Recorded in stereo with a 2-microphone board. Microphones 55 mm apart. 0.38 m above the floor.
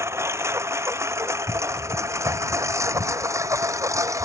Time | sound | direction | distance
0.0 | a lawn mower | 55° right (ahead or behind) | ?